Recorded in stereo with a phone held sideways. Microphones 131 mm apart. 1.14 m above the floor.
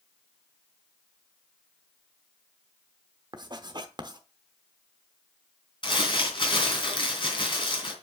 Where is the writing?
35° right (ahead or behind), 0.9 m.